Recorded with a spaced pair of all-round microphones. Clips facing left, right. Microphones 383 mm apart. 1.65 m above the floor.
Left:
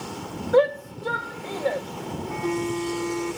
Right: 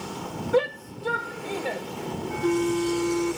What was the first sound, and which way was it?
A shout, 40° right (ahead or behind).